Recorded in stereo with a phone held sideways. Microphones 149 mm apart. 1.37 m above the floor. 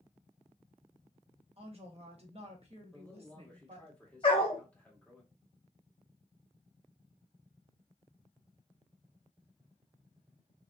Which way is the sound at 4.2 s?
35° left (ahead or behind).